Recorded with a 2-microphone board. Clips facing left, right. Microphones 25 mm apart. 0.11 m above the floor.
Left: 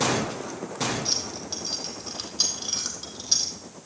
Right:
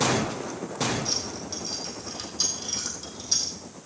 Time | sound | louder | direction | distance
1.1 | keys jangling | left 1 dB | 20° left (ahead or behind) | 2.5 m